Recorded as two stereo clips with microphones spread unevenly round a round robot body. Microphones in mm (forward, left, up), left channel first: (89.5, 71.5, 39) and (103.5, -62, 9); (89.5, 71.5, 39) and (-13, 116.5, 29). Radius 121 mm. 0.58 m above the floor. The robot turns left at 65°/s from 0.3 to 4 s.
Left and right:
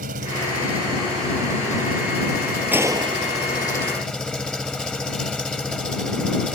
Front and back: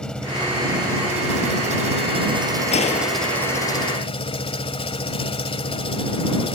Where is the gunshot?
5° right; by 3.8 s 75° right.